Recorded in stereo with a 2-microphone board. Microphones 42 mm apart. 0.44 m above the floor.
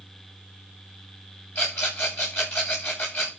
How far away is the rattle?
About 9.5 m.